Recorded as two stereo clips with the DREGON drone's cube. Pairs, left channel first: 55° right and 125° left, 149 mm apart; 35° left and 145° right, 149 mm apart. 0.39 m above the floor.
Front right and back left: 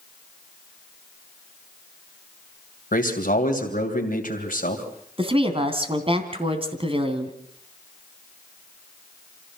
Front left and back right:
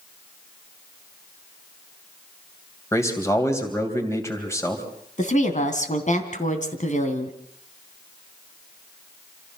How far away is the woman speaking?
About 3 m.